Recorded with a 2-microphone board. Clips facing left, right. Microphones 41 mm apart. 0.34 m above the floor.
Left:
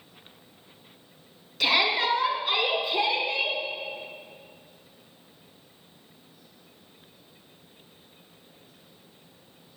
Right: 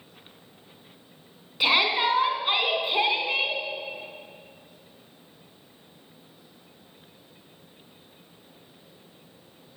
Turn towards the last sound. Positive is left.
turn(degrees=-40)  # may be behind; listen again after turning